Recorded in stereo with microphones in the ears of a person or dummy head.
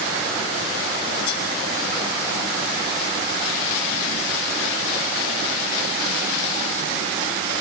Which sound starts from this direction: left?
Cutlery clinking, at 1.3 s.